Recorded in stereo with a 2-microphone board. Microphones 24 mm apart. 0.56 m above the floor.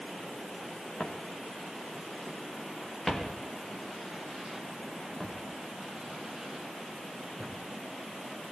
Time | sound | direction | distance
1.0 | footsteps | 45° left (ahead or behind) | 4.5 m